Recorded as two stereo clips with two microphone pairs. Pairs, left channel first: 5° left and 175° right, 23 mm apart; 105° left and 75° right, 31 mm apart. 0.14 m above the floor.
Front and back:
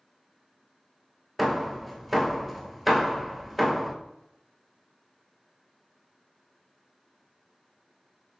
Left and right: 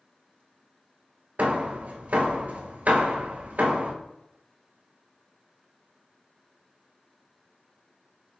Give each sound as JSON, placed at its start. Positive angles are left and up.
{"t": 1.4, "sound": "hammering", "azimuth_deg": -85, "distance_m": 0.8}